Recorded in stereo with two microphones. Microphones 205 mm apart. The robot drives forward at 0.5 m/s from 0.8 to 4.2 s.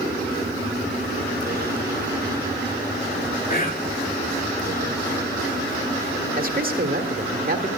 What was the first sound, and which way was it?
Whispering, 45° left (ahead or behind).